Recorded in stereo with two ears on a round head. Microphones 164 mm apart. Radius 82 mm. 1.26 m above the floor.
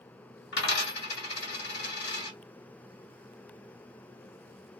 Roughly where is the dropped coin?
Left.